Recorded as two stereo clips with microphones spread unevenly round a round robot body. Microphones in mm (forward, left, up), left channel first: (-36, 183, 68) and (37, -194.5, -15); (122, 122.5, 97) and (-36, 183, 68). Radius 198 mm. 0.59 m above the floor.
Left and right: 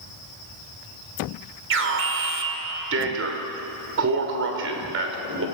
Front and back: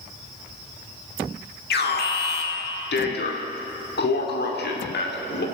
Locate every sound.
1.7 s an alarm: 30° right, 2.5 m